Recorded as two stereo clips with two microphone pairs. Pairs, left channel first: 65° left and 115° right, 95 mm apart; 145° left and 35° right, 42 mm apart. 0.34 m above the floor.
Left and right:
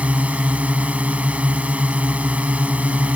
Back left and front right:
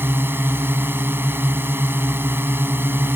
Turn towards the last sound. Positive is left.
turn(degrees=-40)